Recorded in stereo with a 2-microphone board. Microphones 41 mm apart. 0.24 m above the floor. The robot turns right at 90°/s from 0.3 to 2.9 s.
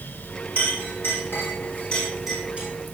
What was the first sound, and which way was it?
A clink, 30° left (ahead or behind).